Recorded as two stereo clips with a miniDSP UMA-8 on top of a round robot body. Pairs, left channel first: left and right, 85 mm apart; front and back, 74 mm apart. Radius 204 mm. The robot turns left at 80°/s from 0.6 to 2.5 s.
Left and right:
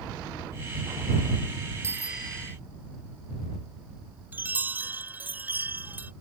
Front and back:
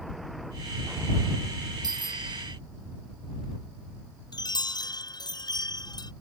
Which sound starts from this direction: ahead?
A chime, at 4.3 s.